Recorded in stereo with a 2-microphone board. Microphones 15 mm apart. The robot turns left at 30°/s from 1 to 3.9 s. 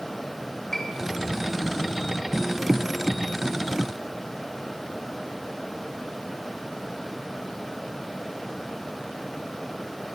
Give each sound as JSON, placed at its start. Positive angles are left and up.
{"t": 0.7, "sound": "a piano", "side_deg": 30, "distance_m": 3.5}